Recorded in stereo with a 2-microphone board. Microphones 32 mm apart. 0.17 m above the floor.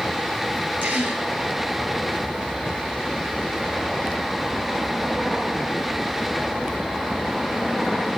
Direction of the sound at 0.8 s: 55° right (ahead or behind).